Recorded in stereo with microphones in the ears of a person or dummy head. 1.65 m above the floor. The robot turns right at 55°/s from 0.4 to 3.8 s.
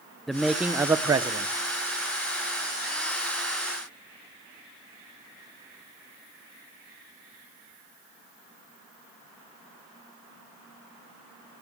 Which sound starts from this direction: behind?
A man speaking, at 0.3 s.